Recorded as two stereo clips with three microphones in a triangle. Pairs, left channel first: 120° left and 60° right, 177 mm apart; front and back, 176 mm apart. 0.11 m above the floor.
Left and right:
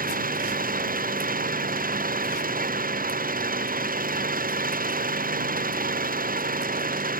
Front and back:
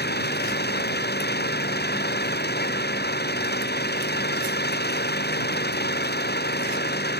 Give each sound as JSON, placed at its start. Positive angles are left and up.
{"t": 0.0, "sound": "an engine running", "azimuth_deg": -25}